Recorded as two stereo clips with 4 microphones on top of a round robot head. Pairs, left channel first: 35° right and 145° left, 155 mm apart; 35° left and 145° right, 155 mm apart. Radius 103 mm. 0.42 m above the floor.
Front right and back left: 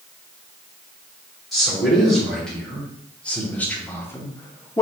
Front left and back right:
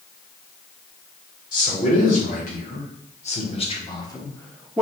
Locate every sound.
1.5 s a man speaking: 55° left, 1.9 m; by 4.8 s 70° right, 0.8 m